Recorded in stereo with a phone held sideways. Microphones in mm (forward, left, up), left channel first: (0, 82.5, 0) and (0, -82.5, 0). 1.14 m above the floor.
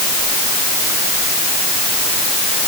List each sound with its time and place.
Only background noise.